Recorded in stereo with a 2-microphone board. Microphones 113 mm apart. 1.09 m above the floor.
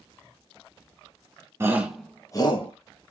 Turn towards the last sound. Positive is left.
turn(degrees=55)  # may be behind; listen again after turning